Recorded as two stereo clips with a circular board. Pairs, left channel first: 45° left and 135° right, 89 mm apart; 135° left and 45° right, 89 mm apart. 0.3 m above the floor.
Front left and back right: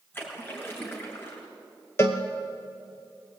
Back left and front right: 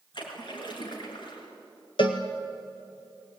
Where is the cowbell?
105° left, 2 m.